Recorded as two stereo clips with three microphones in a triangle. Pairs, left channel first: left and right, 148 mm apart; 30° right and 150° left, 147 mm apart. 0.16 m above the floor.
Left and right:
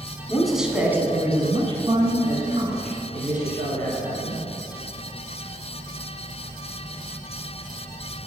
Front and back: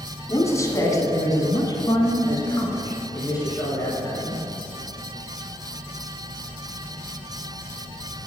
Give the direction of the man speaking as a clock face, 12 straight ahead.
12 o'clock.